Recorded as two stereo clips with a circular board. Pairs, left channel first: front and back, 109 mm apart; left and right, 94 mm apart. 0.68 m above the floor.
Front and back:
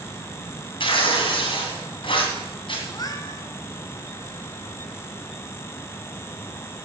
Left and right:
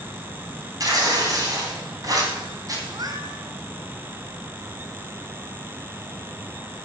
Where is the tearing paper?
40° right, 2.5 m.